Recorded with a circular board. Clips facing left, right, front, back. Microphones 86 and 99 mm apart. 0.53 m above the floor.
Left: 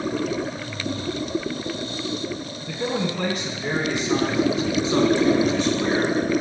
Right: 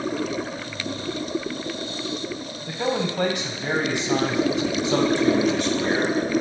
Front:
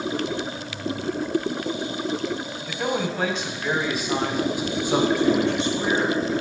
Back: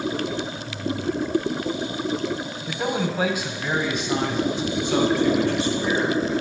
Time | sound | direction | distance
2.7 | a man speaking | 105° right | 2.5 m